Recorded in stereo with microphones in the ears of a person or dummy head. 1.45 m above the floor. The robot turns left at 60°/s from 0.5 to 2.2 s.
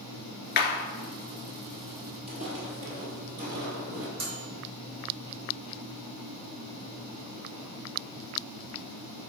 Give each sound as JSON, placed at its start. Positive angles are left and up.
{"t": 0.6, "sound": "a clap", "side_deg": 50, "distance_m": 1.8}
{"t": 2.3, "sound": "footsteps", "side_deg": -45, "distance_m": 1.9}
{"t": 4.2, "sound": "a microwave", "side_deg": -75, "distance_m": 2.5}